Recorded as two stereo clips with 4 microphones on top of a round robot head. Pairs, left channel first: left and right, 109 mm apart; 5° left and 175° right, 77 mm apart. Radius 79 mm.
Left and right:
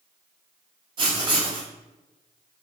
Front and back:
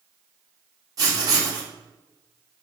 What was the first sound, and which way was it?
Writing, 130° right.